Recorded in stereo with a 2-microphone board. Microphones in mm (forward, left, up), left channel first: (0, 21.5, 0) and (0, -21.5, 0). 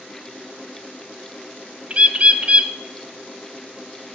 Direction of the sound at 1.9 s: 35° right (ahead or behind).